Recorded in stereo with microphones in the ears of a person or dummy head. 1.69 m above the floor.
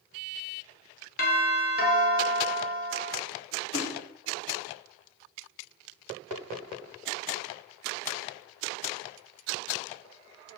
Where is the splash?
55° left (ahead or behind), 3 m.